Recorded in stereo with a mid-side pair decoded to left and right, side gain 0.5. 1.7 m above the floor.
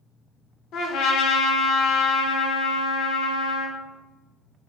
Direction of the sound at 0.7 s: 70° left.